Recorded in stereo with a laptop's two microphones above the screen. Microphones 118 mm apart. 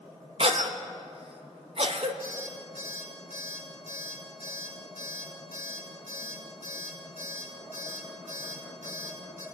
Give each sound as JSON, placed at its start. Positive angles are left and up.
{"t": 0.4, "sound": "a cough", "side_deg": -55, "distance_m": 1.1}
{"t": 2.2, "sound": "an alarm clock", "side_deg": -75, "distance_m": 5.5}